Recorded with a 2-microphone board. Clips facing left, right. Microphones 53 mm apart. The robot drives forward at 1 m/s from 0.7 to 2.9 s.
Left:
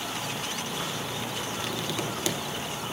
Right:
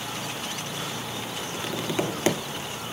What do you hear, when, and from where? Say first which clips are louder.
1.5 s tapping: right 6 dB; 20° right (ahead or behind), 1.2 m; by 2.4 s 45° right (ahead or behind), 0.6 m